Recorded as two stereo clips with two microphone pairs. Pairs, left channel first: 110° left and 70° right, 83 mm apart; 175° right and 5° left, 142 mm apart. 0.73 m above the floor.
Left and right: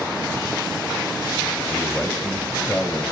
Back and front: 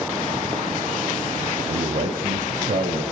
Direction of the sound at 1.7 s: 25° left.